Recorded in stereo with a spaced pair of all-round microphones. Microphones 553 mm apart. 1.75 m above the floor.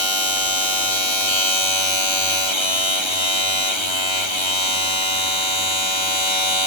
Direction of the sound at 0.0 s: 55° left (ahead or behind).